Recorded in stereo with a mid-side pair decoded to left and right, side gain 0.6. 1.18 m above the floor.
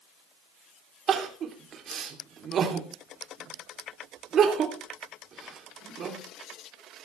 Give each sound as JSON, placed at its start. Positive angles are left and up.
{"t": 1.1, "sound": "crying", "azimuth_deg": -45, "distance_m": 3.0}